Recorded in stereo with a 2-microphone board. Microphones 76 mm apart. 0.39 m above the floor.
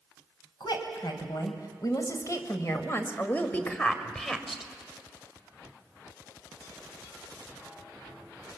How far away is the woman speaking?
About 2.5 m.